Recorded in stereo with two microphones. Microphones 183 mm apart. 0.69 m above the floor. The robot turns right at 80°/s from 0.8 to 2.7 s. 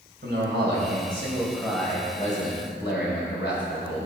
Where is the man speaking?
75° right, 3 m; by 4.1 s 75° left, 3 m.